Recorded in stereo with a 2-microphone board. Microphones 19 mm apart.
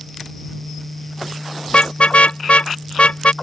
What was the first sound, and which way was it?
A car horn, 85° left.